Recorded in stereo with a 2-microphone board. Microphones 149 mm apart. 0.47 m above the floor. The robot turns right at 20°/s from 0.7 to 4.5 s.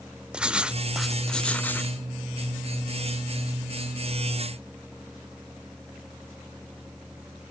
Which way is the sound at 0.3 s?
5° right (ahead or behind).